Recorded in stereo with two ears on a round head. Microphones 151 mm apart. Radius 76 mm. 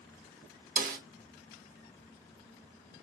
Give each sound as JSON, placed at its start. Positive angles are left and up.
{"t": 0.8, "sound": "a snare drum", "side_deg": -55, "distance_m": 1.3}